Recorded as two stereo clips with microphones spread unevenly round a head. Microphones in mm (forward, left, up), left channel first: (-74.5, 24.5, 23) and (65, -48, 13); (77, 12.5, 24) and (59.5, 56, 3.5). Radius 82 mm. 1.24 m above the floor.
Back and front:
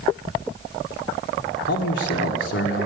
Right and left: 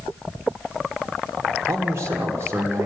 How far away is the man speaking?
About 1.4 m.